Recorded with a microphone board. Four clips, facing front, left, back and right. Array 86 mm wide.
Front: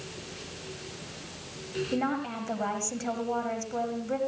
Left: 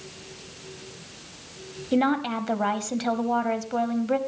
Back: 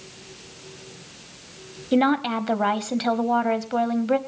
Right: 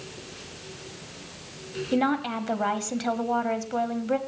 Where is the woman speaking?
175° left, 1.4 m.